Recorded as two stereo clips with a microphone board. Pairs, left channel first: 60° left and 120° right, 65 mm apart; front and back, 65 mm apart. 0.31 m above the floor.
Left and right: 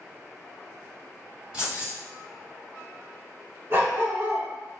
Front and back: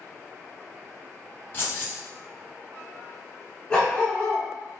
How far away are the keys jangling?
About 1.2 m.